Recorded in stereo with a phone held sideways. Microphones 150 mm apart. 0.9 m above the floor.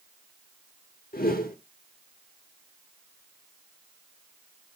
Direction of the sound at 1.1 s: 80° left.